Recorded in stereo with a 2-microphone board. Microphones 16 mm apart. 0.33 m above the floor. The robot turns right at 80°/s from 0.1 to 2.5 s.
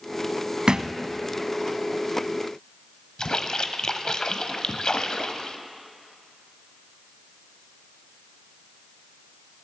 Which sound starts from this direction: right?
A thud, at 0.7 s.